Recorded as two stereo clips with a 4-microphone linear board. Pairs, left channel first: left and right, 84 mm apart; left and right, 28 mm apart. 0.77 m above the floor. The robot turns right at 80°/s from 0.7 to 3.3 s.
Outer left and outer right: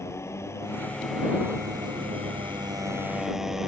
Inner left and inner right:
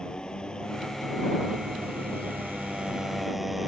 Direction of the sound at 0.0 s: 150° left.